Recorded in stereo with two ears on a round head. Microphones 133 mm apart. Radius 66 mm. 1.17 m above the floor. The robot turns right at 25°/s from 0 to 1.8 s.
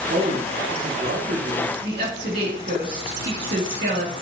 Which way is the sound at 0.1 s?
115° right.